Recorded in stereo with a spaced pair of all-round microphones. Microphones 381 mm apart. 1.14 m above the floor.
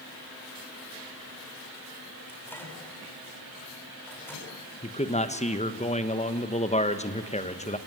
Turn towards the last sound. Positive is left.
turn(degrees=15)  # may be behind; listen again after turning